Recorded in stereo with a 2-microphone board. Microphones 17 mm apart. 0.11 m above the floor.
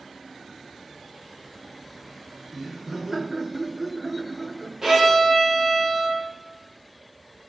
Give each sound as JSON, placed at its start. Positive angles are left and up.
{"t": 2.5, "sound": "laughter", "side_deg": -20, "distance_m": 1.1}
{"t": 4.8, "sound": "a violin", "side_deg": -35, "distance_m": 3.5}